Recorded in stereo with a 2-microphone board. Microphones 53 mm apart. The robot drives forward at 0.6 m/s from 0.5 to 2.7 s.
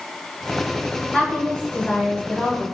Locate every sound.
1.1 s a woman speaking: 10° left (ahead or behind), 1.5 m; by 2.6 s 20° left (ahead or behind), 0.8 m